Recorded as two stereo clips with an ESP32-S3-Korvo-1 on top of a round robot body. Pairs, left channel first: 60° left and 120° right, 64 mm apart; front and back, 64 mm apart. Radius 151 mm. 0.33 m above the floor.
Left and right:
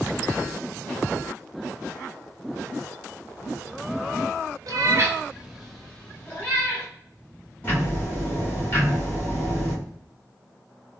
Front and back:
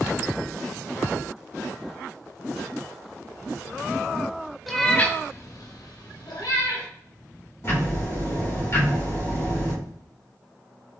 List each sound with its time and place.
4.7 s a cat meowing: 90° right, 0.5 m; by 6.9 s straight ahead, 1.2 m
7.6 s ticking: 15° left, 2.0 m